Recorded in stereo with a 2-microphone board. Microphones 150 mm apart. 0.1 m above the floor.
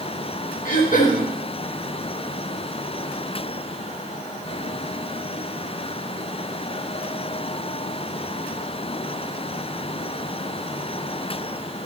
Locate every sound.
0.7 s throat clearing: 60° left (ahead or behind), 4.5 m